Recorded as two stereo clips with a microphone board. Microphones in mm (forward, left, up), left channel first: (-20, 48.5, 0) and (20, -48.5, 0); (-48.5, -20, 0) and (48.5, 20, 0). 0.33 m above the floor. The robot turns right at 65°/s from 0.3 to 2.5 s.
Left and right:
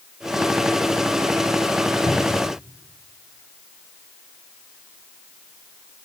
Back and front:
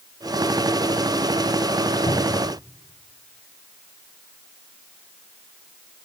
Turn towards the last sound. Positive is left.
turn(degrees=-165)